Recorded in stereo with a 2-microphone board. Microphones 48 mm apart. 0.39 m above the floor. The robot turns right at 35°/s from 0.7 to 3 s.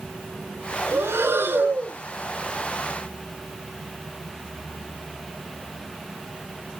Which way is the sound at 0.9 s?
70° right.